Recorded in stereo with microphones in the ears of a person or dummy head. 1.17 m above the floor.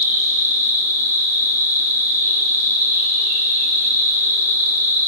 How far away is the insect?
About 9 m.